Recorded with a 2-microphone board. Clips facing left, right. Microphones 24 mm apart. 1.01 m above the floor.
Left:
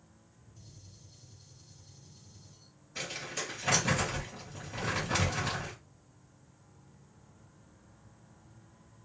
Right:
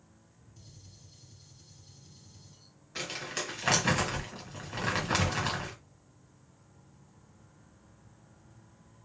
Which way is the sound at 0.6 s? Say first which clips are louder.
Right 1 dB; 40° right (ahead or behind).